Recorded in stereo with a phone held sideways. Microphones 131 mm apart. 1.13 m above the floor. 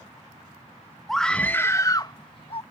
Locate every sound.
1.1 s a scream: centre (ahead or behind); by 2.6 s 45° left (ahead or behind)